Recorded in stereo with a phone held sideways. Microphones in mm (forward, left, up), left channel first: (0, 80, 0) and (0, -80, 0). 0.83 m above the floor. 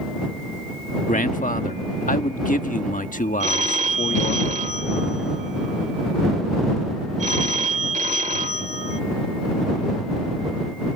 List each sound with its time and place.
1.1 s a man speaking: 55° left (ahead or behind)
3.4 s a phone ringing: 50° right (ahead or behind)